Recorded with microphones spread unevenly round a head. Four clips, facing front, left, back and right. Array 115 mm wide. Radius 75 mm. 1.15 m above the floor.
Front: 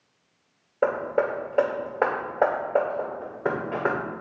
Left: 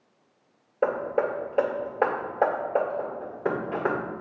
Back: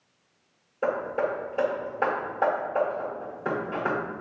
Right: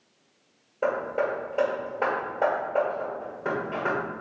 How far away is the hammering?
About 1.6 m.